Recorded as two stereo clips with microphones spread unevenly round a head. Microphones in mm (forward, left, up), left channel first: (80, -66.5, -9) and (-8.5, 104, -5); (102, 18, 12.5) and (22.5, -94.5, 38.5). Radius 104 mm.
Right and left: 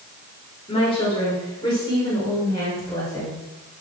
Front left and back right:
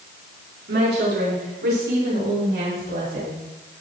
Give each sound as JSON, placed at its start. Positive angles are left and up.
{"t": 0.7, "sound": "a woman speaking", "azimuth_deg": -130, "distance_m": 4.5}